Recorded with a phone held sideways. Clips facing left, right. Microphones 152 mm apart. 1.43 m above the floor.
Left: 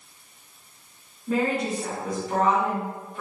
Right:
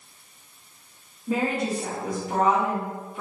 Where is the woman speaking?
10° right (ahead or behind), 1.8 m.